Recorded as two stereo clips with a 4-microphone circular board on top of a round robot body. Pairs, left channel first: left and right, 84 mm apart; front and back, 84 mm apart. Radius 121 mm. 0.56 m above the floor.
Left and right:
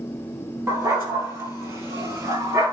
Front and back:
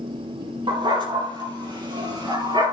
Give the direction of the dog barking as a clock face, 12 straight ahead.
5 o'clock.